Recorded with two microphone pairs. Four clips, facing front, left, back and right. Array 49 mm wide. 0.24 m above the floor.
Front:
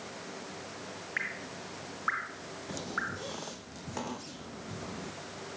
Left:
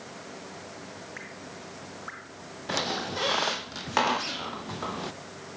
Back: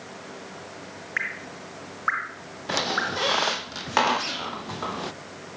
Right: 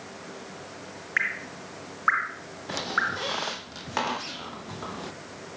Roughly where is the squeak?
Behind.